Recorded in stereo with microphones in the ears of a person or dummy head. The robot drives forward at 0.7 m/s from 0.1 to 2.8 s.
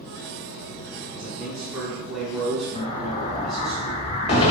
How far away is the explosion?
About 0.9 m.